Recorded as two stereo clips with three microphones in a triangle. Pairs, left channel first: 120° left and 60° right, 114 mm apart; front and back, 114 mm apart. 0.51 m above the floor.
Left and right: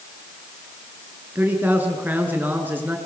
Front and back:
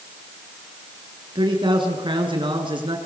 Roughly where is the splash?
I don't hear a splash.